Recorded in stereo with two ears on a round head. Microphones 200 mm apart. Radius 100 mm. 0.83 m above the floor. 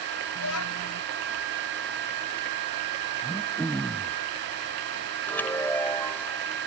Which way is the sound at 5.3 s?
10° left (ahead or behind).